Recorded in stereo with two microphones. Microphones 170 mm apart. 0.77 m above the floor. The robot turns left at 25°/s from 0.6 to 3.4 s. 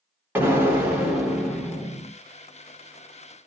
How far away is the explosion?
About 1.1 m.